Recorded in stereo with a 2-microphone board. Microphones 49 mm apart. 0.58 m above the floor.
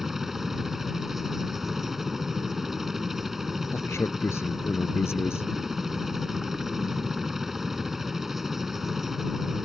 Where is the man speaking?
65° left (ahead or behind).